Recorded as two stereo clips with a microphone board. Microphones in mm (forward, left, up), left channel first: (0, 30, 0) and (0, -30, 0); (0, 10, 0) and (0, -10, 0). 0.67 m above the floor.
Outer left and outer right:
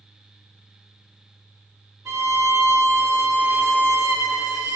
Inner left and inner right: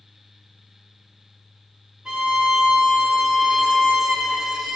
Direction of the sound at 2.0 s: 60° right (ahead or behind).